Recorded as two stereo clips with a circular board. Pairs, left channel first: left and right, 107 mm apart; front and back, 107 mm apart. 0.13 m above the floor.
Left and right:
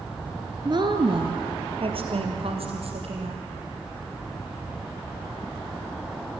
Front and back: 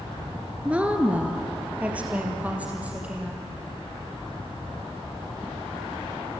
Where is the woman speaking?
105° right, 1.9 m.